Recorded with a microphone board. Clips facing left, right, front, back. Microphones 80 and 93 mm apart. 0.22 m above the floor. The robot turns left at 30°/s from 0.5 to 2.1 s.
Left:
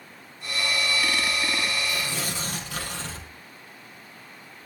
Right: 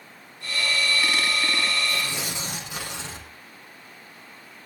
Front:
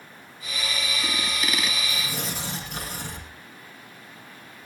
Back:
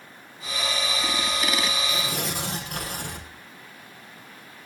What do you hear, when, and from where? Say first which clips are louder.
1.9 s tearing paper: right 1 dB, back 3 dB; 155° right, 5 m; by 3.3 s 160° right, 5 m